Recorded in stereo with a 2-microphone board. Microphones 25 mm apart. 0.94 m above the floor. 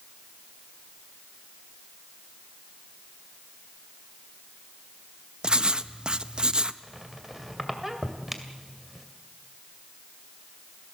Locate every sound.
5.4 s writing: 40° right (ahead or behind), 0.6 m
6.8 s a squeak: 5° right (ahead or behind), 2 m